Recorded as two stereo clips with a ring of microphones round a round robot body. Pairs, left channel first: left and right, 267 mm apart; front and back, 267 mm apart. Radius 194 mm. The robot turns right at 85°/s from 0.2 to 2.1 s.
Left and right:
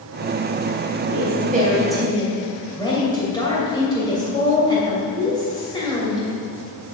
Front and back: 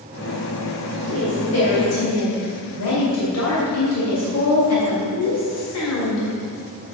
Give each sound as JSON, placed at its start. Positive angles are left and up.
{"t": 1.1, "sound": "a woman speaking", "azimuth_deg": -70, "distance_m": 3.0}